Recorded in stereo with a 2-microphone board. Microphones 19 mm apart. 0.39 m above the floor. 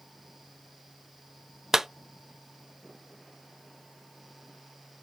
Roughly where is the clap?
Right.